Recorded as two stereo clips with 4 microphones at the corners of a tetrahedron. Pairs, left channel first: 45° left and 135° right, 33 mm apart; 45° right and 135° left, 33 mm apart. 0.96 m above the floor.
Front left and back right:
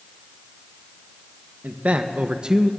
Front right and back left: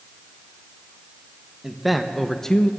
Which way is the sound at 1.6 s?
145° right.